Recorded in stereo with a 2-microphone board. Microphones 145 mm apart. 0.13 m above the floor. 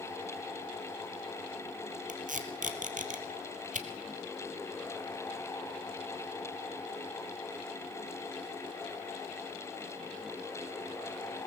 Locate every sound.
2.1 s tape being pulled: 70° right (ahead or behind), 2.0 m